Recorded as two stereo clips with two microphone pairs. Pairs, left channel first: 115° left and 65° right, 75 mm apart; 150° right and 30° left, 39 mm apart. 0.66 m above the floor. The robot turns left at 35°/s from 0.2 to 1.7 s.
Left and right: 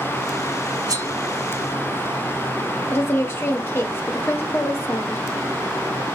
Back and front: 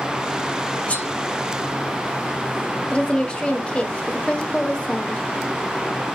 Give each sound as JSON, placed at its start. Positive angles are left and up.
{"t": 0.9, "sound": "cutlery clinking", "azimuth_deg": -95, "distance_m": 1.6}
{"t": 2.9, "sound": "a woman speaking", "azimuth_deg": 155, "distance_m": 1.5}